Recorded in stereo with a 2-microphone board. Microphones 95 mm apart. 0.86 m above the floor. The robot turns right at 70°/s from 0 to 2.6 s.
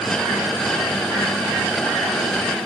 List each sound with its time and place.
Only background noise.